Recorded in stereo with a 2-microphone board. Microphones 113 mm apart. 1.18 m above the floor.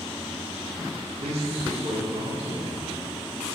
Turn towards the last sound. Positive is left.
turn(degrees=-65)  # may be behind; listen again after turning